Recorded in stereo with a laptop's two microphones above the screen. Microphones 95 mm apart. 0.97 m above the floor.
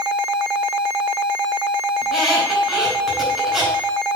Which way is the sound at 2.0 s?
Centre (ahead or behind).